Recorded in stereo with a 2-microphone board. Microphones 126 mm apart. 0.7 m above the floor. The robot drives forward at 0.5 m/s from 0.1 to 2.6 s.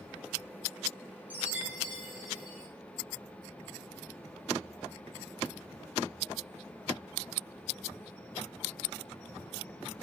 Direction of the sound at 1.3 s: 15° right (ahead or behind).